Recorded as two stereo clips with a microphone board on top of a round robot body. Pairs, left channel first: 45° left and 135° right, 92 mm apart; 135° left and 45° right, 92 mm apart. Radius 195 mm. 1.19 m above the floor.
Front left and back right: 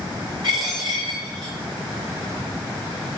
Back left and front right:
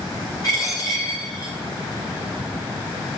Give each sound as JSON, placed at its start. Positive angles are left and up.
{"t": 0.4, "sound": "a dropped coin", "azimuth_deg": -170, "distance_m": 0.5}